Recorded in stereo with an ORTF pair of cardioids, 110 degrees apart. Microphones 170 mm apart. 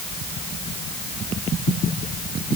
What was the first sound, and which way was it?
Only background noise.